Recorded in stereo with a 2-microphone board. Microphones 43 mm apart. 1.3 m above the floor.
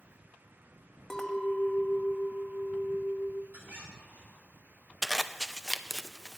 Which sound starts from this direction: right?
A squeak, at 3.5 s.